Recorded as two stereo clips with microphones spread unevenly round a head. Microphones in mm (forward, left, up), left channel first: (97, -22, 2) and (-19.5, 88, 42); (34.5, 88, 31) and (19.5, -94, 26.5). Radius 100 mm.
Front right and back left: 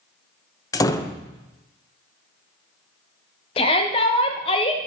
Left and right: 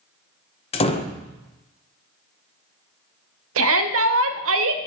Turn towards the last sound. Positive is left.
turn(degrees=-105)